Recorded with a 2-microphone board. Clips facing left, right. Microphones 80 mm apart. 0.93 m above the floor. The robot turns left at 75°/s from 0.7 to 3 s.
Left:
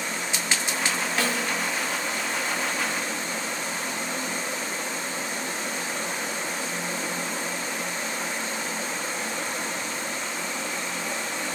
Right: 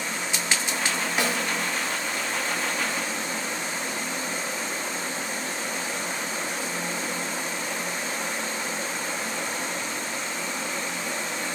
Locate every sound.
1.2 s a snare drum: 15° right (ahead or behind), 0.7 m; by 1.5 s centre (ahead or behind), 0.7 m